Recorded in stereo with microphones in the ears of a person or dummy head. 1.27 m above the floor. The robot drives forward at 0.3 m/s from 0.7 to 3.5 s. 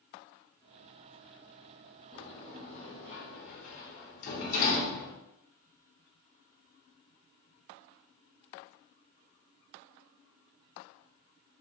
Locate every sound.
2.1 s a sliding door: 35° left (ahead or behind), 1.0 m; by 5.2 s 50° left (ahead or behind), 0.7 m